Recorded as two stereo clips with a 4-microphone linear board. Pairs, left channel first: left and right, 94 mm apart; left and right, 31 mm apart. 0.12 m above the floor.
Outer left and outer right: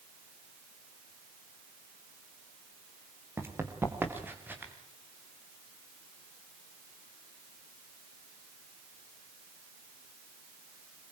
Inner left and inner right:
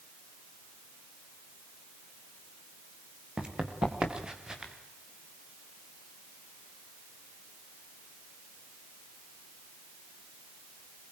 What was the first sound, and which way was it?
Running footsteps, 25° right (ahead or behind).